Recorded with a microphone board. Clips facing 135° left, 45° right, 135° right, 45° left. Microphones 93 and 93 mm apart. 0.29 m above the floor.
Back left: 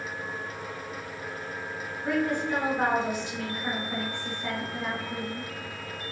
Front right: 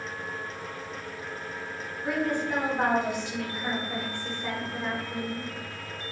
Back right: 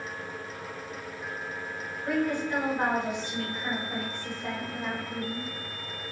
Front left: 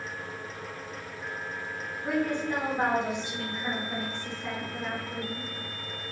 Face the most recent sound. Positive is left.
turn(degrees=-105)